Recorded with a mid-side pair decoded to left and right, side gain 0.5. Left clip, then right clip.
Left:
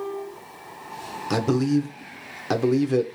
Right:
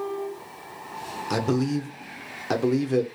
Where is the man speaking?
15° left, 0.9 m.